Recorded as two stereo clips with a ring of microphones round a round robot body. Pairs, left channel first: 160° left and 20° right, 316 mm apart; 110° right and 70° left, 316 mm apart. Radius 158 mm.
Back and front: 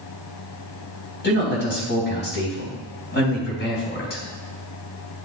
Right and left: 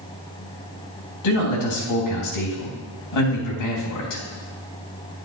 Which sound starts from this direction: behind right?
A man speaking, at 1.2 s.